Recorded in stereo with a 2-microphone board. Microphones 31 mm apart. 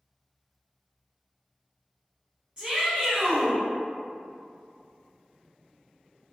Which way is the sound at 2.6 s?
20° right (ahead or behind).